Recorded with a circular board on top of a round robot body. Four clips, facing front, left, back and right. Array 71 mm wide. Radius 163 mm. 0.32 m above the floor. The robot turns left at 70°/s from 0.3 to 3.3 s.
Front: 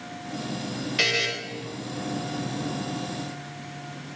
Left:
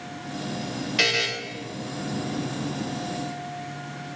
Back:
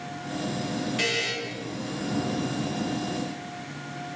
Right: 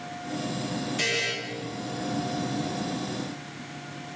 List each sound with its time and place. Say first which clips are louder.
1.0 s a buzzer: left 6 dB, front 6 dB; 60° left, 0.8 m; by 1.3 s 40° left, 0.8 m